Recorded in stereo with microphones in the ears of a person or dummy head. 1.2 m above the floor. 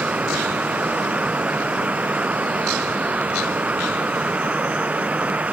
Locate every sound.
0.0 s a fan: 10° right (ahead or behind)